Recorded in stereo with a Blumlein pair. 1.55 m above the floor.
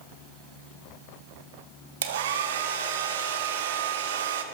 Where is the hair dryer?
60° right, 1.7 m.